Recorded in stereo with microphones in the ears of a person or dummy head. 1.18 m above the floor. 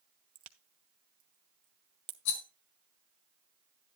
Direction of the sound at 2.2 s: 80° left.